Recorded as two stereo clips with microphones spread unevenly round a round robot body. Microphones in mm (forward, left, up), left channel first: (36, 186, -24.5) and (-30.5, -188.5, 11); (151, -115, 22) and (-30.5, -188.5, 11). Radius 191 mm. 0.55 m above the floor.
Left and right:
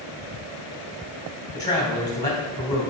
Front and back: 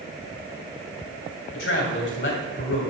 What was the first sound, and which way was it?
A man speaking, straight ahead.